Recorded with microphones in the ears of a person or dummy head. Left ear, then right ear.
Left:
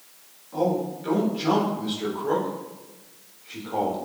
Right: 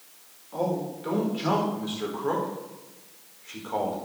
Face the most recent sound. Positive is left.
turn(degrees=-75)  # may be behind; listen again after turning